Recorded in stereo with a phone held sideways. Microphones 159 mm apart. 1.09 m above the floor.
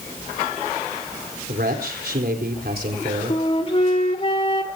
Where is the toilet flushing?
No toilet flushing in this recording.